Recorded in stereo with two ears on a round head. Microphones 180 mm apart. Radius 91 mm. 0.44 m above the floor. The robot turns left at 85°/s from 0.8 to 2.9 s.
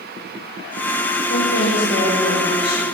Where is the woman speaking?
95° left, 7 m; by 2.9 s 35° right, 7 m.